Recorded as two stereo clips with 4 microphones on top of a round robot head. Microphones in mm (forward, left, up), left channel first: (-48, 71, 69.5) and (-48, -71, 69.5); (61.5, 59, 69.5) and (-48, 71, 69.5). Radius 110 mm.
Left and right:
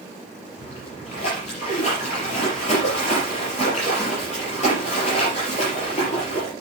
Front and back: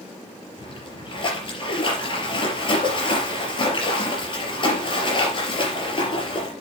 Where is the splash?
40° left, 4.5 m.